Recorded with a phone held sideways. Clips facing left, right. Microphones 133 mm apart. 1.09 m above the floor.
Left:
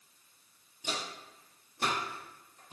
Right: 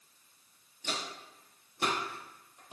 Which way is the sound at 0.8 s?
15° left (ahead or behind).